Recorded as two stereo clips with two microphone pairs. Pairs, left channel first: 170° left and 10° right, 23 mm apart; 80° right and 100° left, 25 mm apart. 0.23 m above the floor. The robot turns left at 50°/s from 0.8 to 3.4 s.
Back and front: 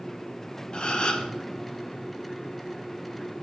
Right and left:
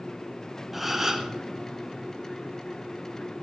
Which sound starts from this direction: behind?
A gasp, at 0.7 s.